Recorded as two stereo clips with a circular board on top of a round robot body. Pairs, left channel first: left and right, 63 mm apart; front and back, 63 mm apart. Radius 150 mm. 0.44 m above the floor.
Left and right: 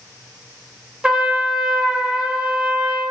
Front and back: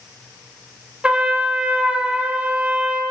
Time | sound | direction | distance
1.0 | a trumpet | 145° right | 0.9 m